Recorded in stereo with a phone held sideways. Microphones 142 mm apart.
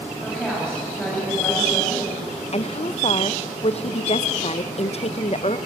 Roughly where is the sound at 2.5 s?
Left.